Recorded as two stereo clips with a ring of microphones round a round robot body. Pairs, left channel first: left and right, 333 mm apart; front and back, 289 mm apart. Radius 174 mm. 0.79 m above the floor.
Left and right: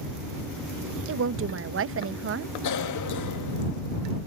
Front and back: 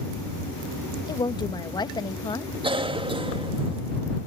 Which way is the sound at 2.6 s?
110° left.